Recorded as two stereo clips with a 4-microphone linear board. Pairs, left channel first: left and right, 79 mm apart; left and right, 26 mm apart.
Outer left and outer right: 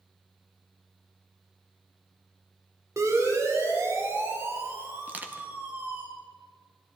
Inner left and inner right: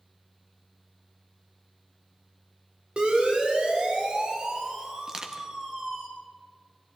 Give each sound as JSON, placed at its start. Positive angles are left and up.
{"t": 3.0, "sound": "a siren", "side_deg": -45, "distance_m": 4.5}
{"t": 5.1, "sound": "crushing", "side_deg": -20, "distance_m": 1.7}